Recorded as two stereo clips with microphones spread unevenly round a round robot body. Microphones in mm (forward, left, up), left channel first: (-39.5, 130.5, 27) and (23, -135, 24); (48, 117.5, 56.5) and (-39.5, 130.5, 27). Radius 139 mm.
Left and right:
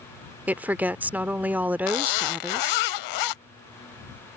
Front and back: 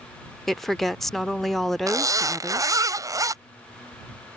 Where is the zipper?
115° left.